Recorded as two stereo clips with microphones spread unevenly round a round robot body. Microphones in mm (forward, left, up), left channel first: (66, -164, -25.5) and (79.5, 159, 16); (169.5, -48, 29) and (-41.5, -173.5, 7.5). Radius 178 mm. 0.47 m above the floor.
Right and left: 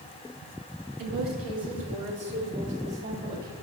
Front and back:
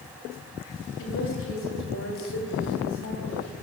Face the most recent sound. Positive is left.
turn(degrees=55)